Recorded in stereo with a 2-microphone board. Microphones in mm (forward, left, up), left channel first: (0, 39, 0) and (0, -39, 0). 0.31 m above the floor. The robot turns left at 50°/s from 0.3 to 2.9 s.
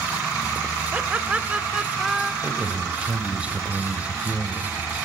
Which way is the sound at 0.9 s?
25° right (ahead or behind).